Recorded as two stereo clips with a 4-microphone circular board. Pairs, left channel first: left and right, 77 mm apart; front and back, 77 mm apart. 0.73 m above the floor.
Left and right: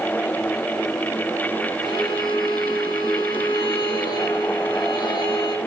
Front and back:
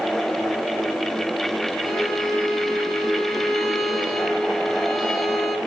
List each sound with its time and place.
1.8 s a violin: 85° left, 1.4 m